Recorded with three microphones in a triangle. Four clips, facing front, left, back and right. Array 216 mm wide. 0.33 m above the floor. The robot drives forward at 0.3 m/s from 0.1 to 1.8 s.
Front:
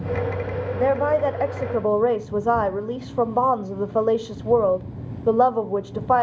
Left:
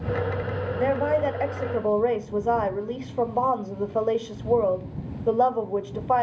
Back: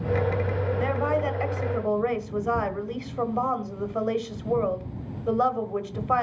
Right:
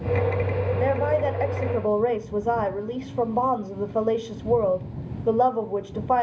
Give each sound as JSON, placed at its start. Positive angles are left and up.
{"t": 0.8, "sound": "a woman speaking", "azimuth_deg": 0, "distance_m": 1.4}